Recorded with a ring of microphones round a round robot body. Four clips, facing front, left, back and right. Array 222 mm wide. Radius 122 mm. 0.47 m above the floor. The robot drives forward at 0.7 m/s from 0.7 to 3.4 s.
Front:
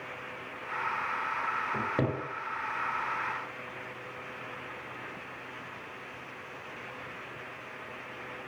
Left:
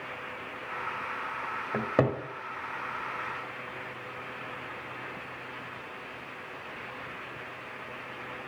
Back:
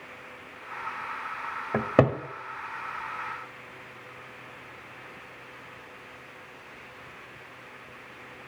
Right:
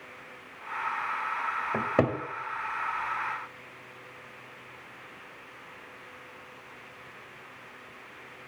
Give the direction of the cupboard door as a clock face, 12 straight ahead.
6 o'clock.